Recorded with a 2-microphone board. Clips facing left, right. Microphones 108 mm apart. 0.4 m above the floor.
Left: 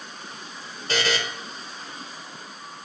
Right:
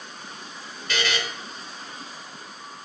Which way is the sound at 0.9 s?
35° left (ahead or behind).